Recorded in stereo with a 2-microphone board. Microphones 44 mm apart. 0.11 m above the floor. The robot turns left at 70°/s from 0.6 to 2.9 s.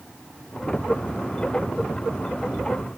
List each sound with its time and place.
Only background noise.